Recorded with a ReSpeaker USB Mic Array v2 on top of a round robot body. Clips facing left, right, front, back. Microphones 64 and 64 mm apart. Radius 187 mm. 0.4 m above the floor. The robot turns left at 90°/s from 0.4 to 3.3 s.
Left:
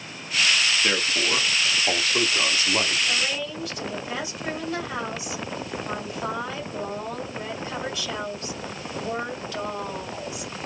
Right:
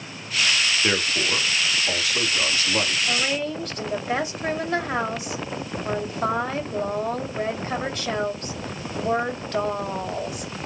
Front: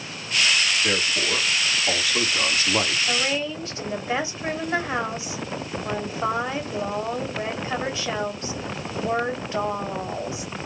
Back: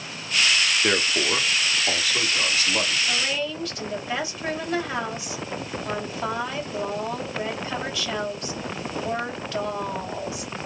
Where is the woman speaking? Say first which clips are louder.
Right 3 dB, front 2 dB; 40° right, 2 m; by 10.5 s 60° right, 2 m.